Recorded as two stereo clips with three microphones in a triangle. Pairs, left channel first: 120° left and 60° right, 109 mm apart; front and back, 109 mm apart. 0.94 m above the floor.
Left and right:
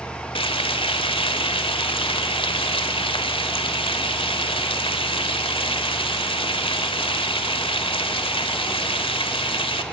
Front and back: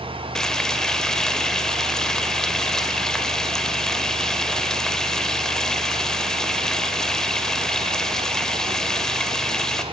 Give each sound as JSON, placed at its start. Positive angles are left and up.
{"t": 0.3, "sound": "frying", "azimuth_deg": 85, "distance_m": 1.6}